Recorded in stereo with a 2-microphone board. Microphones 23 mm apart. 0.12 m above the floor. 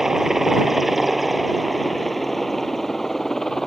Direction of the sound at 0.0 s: 20° right (ahead or behind).